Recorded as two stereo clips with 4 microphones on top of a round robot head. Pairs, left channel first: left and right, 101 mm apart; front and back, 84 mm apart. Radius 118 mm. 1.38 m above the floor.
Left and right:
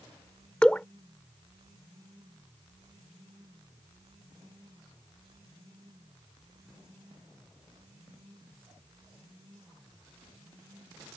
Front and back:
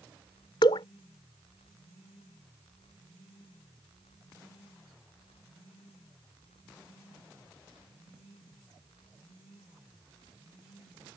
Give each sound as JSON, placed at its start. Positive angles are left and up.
{"t": 0.6, "sound": "dripping", "azimuth_deg": 10}